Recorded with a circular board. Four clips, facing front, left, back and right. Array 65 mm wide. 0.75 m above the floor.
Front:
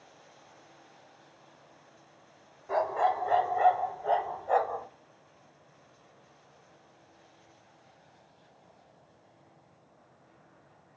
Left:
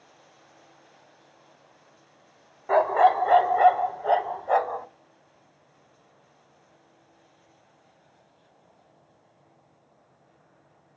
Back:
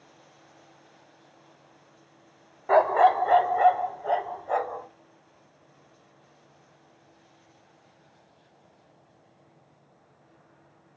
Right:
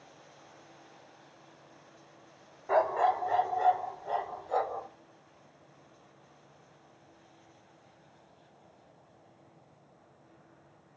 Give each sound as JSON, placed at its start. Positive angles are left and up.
{"t": 2.7, "sound": "a dog barking", "azimuth_deg": 160, "distance_m": 0.6}